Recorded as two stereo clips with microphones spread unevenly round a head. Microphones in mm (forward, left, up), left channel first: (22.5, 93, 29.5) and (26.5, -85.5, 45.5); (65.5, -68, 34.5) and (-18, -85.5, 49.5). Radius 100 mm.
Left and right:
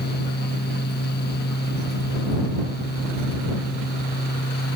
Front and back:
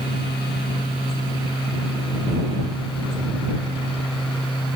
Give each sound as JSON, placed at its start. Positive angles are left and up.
{"t": 0.0, "sound": "a fan", "azimuth_deg": 60}